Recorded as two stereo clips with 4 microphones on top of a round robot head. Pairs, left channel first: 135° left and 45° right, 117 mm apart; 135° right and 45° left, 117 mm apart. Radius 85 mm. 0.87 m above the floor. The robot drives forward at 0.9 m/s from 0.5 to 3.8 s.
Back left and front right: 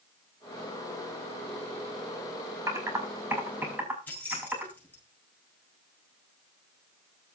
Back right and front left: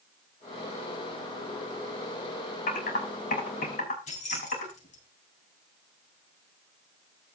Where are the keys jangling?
155° right, 8 m.